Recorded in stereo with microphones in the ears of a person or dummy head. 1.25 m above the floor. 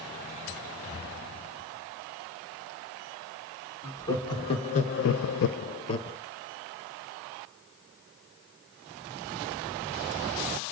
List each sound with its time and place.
3.8 s laughter: 20° left (ahead or behind), 2 m